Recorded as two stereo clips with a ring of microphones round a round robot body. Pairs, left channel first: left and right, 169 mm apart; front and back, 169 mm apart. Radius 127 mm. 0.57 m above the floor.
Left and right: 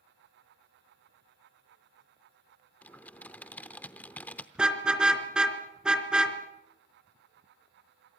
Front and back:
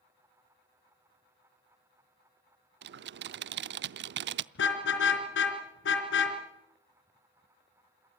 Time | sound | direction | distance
2.8 | typing on a keyboard | 175° left | 0.6 m
4.5 | a car horn | 5° right | 3.5 m